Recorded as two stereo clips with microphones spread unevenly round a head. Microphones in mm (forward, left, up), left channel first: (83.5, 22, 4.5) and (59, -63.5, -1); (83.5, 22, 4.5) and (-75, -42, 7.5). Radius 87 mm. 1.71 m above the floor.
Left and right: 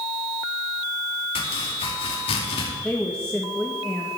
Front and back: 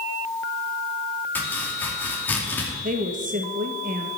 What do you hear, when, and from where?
1.4 s chopping: 100° left, 2.5 m
2.8 s a woman speaking: 155° left, 1.7 m